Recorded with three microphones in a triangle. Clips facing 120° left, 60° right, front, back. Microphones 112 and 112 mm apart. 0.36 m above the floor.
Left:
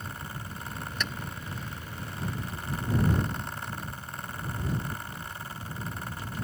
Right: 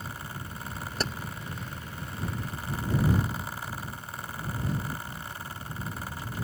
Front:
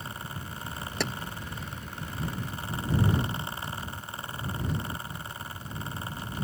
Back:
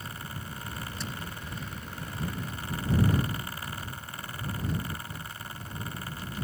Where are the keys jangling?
10° right.